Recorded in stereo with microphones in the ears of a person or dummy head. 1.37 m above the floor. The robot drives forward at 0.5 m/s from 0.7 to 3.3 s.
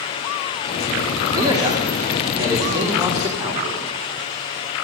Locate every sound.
1.4 s a man speaking: 20° right (ahead or behind), 2.5 m; by 3.9 s 15° right (ahead or behind), 3.5 m